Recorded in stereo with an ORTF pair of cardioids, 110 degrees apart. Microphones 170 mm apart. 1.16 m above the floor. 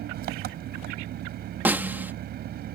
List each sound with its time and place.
0.0 s an engine running: 65° right
1.6 s a snare drum: 10° right